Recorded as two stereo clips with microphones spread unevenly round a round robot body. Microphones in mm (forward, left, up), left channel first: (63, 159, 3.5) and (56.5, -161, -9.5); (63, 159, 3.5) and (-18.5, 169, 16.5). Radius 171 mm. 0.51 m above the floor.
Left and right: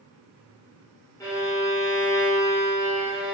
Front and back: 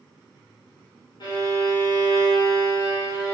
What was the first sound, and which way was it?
A violin, 10° left.